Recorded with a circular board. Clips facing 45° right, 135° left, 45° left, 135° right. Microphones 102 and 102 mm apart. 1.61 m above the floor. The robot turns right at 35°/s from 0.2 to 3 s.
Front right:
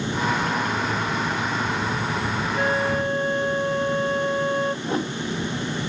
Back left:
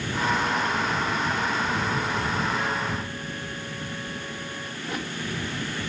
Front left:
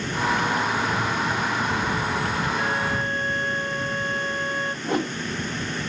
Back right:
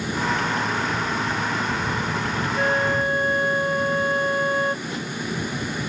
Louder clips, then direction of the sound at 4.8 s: Front right 7 dB, front left 6 dB; 10° left.